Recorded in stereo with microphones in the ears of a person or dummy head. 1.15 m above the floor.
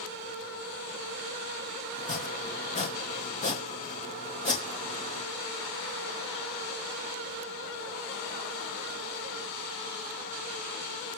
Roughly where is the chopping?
Left.